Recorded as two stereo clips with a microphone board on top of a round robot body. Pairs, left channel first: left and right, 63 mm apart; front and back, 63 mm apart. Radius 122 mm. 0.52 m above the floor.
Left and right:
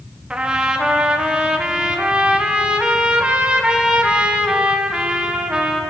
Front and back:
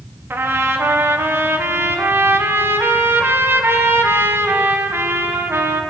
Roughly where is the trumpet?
Behind right.